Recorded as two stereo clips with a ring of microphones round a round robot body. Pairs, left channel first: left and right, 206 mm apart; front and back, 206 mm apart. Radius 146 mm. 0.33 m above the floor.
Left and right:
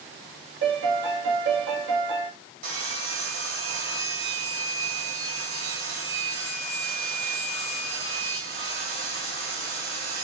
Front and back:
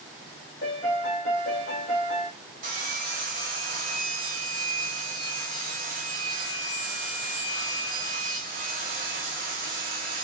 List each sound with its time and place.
0.6 s a piano: 65° right, 1.8 m
2.6 s sawing: 140° right, 1.3 m